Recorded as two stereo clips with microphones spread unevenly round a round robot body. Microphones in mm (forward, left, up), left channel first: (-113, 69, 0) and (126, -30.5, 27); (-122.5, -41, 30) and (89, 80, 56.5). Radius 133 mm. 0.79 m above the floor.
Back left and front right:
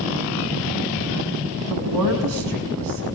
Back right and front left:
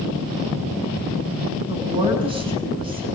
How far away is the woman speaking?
About 7 m.